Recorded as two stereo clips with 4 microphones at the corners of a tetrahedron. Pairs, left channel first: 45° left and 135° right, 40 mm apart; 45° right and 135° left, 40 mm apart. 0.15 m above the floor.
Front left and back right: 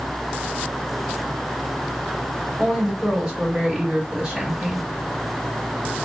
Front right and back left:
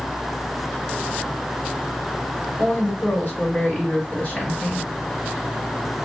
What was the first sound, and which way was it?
A woman speaking, 70° right.